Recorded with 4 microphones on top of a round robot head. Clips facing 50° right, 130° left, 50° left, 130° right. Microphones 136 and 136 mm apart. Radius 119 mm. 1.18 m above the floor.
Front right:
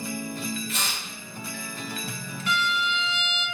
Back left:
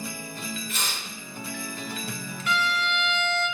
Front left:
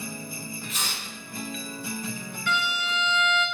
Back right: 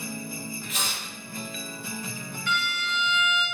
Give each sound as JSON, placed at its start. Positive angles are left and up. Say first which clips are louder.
{"t": 0.7, "sound": "tearing paper", "louder": "front right 1 dB, back right 1 dB", "azimuth_deg": -110, "distance_m": 1.9}
{"t": 2.5, "sound": "a violin", "louder": "back left 1 dB, front left 2 dB", "azimuth_deg": 85, "distance_m": 1.7}